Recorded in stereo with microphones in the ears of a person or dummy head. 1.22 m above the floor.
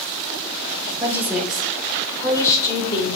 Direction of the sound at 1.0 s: 5° right (ahead or behind).